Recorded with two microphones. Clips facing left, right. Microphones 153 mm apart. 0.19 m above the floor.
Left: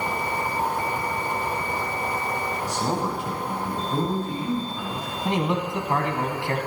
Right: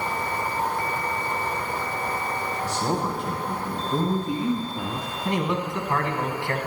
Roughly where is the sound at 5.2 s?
Left.